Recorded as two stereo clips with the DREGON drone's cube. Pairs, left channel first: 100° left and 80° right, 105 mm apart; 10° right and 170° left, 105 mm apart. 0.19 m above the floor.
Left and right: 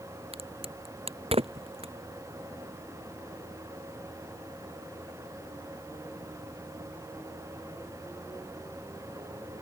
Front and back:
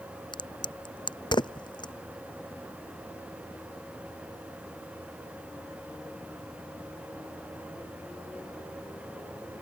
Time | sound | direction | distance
0.3 | a crack | 55° right | ?